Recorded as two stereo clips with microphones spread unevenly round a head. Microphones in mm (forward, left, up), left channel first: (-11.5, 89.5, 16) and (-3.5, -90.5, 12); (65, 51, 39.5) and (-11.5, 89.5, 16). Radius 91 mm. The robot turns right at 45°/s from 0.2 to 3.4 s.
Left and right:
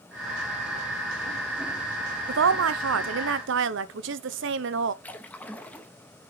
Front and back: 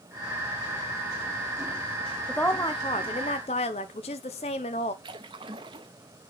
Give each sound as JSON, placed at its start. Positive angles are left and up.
{"t": 2.3, "sound": "a woman speaking", "azimuth_deg": -115, "distance_m": 0.8}
{"t": 5.0, "sound": "a splash", "azimuth_deg": 165, "distance_m": 0.9}